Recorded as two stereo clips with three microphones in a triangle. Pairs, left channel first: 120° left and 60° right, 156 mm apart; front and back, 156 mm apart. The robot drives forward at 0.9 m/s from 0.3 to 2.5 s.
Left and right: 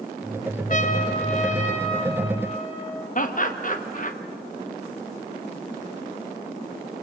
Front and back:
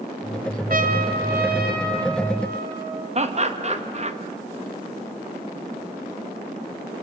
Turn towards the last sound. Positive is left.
turn(degrees=140)